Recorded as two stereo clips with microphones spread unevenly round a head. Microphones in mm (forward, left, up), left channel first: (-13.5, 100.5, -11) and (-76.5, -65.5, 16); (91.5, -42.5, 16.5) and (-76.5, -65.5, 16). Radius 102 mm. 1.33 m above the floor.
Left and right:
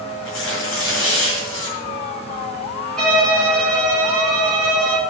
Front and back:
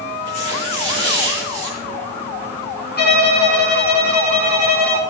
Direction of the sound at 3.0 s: 20° right.